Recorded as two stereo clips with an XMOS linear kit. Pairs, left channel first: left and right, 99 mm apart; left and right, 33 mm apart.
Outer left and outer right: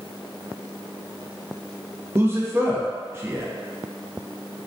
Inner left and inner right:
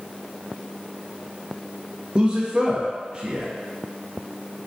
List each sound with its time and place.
2.1 s a man speaking: 25° right (ahead or behind), 0.5 m